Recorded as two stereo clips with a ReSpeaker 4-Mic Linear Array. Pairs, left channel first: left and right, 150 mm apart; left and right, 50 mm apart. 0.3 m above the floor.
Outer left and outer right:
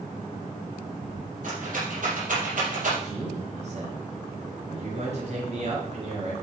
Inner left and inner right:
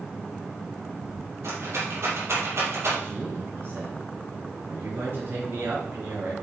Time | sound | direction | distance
1.4 | a rattle | 65° right (ahead or behind) | 4.5 m
3.0 | a man speaking | 50° right (ahead or behind) | 5 m